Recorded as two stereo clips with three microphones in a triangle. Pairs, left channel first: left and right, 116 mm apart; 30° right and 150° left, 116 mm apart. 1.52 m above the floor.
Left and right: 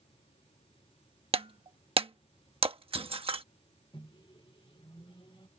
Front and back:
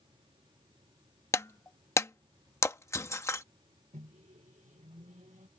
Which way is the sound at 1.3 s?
90° right.